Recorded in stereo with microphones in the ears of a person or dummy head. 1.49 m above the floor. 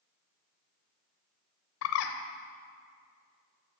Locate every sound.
1.8 s a bird: 65° left (ahead or behind), 0.8 m